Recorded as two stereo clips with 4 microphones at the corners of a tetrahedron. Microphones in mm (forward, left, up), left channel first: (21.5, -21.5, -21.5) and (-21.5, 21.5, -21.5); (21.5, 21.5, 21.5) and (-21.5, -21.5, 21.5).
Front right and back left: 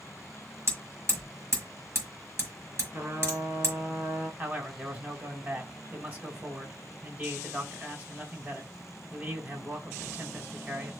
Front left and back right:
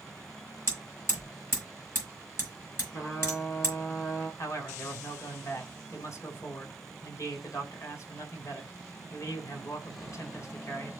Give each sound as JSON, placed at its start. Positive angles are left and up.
{"t": 0.7, "sound": "hammering", "azimuth_deg": 90, "distance_m": 5.5}
{"t": 2.9, "sound": "a trumpet", "azimuth_deg": 80, "distance_m": 4.5}
{"t": 4.4, "sound": "a man speaking", "azimuth_deg": 80, "distance_m": 3.0}